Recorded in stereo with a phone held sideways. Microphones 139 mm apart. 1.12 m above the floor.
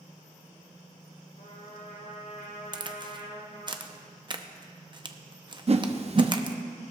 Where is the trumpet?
75° left (ahead or behind), 2.5 m.